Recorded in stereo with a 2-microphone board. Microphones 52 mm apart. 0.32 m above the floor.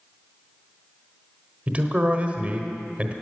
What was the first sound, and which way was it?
A man speaking, 25° right (ahead or behind).